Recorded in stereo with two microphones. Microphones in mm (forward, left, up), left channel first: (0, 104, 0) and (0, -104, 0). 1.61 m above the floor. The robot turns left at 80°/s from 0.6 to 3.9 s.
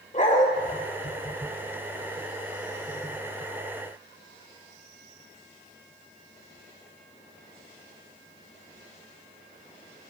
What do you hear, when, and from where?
0.1 s a dog barking: 40° left (ahead or behind), 1.6 m